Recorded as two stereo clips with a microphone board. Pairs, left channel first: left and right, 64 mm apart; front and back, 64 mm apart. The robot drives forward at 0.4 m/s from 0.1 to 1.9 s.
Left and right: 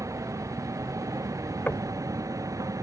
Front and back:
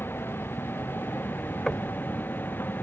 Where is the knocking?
75° left; by 2.0 s 90° left.